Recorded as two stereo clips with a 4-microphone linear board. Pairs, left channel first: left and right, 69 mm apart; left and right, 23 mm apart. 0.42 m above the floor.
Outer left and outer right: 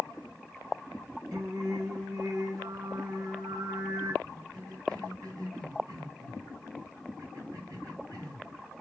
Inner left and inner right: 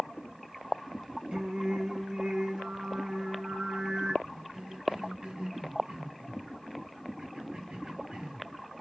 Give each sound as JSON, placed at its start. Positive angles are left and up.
{"t": 1.3, "sound": "singing", "side_deg": -60, "distance_m": 3.5}
{"t": 4.2, "sound": "a cough", "side_deg": -65, "distance_m": 3.5}